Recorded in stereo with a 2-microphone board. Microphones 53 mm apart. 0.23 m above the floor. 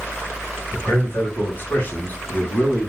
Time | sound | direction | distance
0.7 | a man speaking | 50° left (ahead or behind) | 1.9 m